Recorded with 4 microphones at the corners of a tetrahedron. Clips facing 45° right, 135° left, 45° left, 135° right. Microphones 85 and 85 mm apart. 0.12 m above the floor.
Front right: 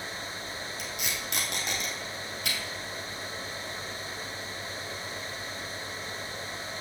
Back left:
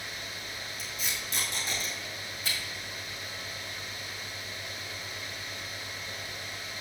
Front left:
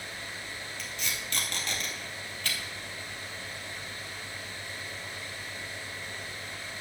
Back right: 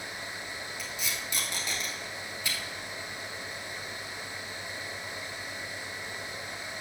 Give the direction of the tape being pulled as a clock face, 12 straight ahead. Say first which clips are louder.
Front right 1 dB, even; 2 o'clock.